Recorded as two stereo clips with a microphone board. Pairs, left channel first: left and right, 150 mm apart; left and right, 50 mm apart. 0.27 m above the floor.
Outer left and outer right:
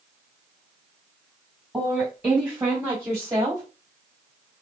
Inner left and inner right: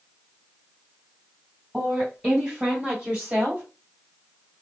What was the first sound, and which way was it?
A woman speaking, 5° right (ahead or behind).